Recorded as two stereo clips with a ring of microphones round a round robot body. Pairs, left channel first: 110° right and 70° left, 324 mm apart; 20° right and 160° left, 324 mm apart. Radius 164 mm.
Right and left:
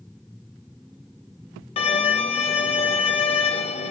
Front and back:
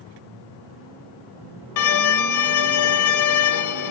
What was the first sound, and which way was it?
A violin, 40° right.